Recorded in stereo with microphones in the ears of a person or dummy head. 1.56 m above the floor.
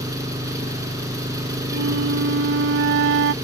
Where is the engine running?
20° right (ahead or behind).